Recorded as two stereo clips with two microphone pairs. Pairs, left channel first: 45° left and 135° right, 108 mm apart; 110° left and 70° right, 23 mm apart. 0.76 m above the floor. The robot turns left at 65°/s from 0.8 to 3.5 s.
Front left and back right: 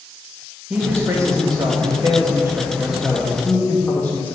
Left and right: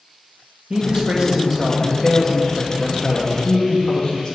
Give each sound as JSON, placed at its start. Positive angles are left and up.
{"t": 0.7, "sound": "a man speaking", "azimuth_deg": -70, "distance_m": 1.2}